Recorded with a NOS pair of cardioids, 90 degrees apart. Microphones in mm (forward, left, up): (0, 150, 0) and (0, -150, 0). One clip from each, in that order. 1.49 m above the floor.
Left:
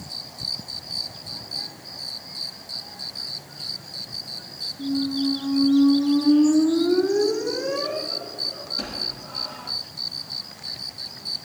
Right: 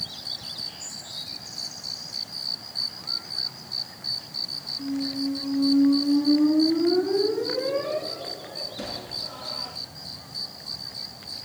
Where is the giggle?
I don't hear a giggle.